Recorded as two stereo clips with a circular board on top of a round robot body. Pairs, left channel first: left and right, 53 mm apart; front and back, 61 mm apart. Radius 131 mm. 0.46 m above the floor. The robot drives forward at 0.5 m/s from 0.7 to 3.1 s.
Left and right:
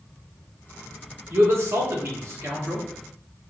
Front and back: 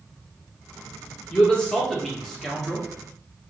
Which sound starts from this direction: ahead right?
A man speaking, at 1.3 s.